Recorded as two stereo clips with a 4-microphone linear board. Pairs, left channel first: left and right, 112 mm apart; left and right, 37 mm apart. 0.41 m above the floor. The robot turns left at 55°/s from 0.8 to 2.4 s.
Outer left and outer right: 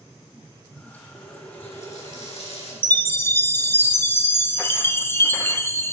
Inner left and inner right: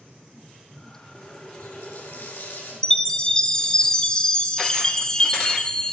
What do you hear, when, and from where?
1.1 s a running tap: 140° left, 4.5 m; by 2.7 s 70° left, 4.5 m
2.8 s a chime: 20° left (ahead or behind), 0.6 m